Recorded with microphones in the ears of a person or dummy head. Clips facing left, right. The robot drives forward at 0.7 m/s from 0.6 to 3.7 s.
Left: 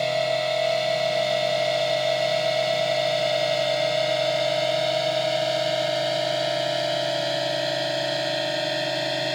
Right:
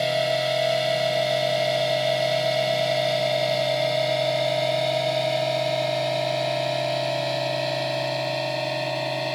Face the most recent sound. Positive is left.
turn(degrees=10)  # may be behind; listen again after turning